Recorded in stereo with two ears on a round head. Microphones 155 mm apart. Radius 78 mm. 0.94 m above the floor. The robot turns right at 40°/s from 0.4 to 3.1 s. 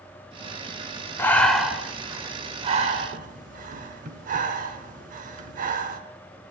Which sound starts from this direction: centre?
Breathing, at 1.2 s.